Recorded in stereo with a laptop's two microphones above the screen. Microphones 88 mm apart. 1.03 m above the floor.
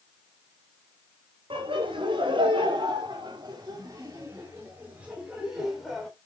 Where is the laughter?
85° right, 3.5 m; by 6.1 s centre (ahead or behind), 3.5 m.